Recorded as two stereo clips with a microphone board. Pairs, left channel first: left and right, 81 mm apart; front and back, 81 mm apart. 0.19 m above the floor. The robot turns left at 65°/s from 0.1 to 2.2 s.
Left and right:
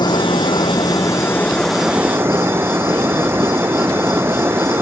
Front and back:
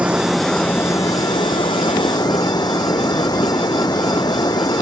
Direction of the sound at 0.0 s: 105° left.